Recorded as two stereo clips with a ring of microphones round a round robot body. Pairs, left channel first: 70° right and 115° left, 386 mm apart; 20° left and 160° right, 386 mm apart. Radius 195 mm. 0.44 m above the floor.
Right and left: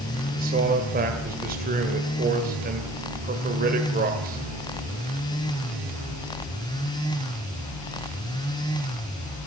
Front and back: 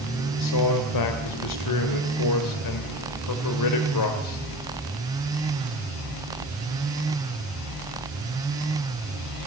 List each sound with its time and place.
0.4 s a man speaking: 50° left, 2.5 m